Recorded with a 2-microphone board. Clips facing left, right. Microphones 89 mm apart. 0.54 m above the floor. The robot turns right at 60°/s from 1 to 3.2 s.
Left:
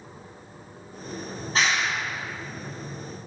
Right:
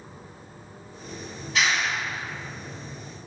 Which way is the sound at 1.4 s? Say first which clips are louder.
Even; 45° left (ahead or behind).